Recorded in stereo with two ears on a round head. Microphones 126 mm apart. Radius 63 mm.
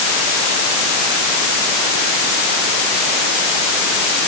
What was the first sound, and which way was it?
Only background noise.